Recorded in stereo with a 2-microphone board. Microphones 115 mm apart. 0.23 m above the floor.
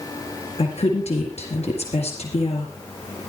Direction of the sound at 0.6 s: 70° left (ahead or behind).